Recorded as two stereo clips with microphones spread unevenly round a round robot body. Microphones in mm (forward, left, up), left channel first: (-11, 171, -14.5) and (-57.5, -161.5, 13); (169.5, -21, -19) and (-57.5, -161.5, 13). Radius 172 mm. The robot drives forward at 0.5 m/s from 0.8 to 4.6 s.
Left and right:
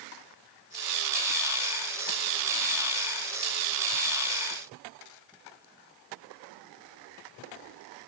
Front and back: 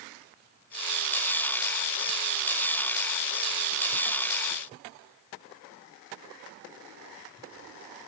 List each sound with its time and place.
Only background noise.